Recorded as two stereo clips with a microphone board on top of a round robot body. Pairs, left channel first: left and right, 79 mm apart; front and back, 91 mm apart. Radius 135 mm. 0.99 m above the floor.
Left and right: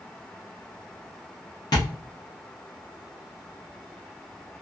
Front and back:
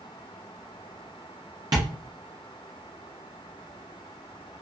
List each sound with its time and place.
1.7 s tapping: 135° left, 0.5 m